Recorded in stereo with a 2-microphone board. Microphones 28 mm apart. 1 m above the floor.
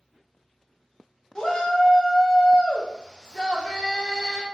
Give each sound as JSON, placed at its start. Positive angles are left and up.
{"t": 1.4, "sound": "a shout", "side_deg": 20, "distance_m": 0.5}